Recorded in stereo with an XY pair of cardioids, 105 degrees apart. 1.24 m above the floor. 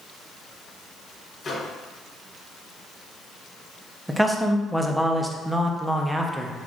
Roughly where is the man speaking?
Ahead.